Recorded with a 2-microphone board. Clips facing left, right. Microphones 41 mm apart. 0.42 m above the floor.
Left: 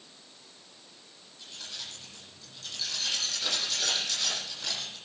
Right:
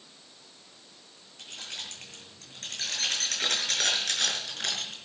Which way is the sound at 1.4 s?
55° right (ahead or behind).